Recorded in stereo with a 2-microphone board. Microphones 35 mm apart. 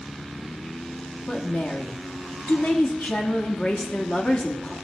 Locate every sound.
1.3 s a woman speaking: 45° left (ahead or behind), 1.4 m